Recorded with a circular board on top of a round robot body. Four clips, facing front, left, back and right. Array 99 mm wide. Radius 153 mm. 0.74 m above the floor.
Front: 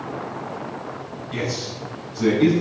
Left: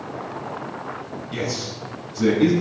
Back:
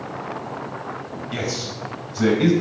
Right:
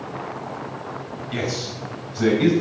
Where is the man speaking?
140° right, 6 m.